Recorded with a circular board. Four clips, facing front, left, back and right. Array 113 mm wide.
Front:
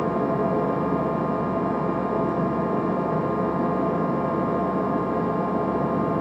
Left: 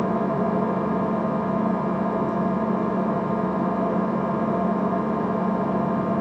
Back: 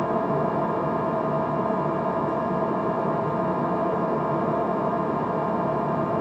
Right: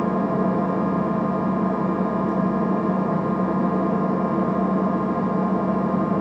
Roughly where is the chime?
No chime in this recording.